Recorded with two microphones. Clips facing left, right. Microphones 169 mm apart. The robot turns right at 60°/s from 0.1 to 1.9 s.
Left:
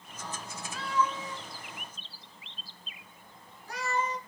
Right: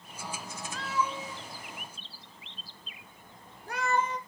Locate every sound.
0.7 s a cat meowing: 5° left (ahead or behind), 0.6 m; by 4.2 s 60° right (ahead or behind), 0.6 m